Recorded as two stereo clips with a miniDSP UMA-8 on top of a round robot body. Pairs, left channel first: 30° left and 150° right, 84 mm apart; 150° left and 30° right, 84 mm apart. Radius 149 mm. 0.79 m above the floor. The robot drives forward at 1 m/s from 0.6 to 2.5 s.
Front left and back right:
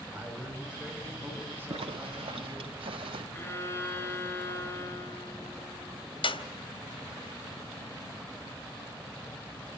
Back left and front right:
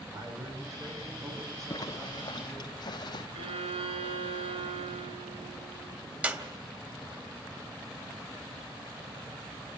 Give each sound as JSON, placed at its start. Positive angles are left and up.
{"t": 0.1, "sound": "a man speaking", "azimuth_deg": -75, "distance_m": 5.5}
{"t": 1.7, "sound": "a zipper", "azimuth_deg": -160, "distance_m": 1.1}
{"t": 3.3, "sound": "a violin", "azimuth_deg": -35, "distance_m": 2.0}
{"t": 6.2, "sound": "a clap", "azimuth_deg": 40, "distance_m": 1.9}